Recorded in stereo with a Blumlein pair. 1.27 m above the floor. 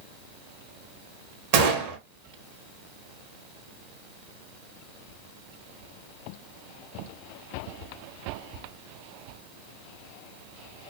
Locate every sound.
1.5 s a gunshot: 50° right, 0.7 m